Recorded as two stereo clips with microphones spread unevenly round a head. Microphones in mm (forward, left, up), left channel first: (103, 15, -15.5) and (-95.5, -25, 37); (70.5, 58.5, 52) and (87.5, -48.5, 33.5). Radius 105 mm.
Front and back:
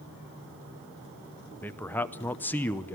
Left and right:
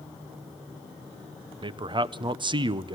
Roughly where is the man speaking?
Ahead right.